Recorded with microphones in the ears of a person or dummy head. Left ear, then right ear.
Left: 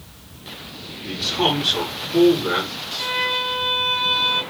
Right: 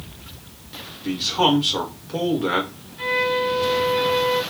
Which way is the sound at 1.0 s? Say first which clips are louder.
Right 1 dB; 70° right (ahead or behind).